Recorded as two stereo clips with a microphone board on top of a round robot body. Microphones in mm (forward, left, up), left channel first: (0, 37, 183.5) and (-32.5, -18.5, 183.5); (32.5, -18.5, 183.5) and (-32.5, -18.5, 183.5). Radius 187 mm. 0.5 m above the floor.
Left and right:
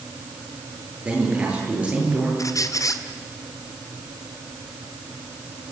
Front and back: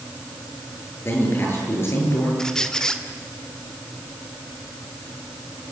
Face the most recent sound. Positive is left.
turn(degrees=80)